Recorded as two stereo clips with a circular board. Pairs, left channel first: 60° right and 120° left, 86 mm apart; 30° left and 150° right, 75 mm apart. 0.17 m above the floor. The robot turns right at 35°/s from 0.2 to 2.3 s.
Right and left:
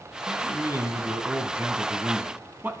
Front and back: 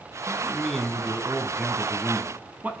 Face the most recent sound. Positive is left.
turn(degrees=165)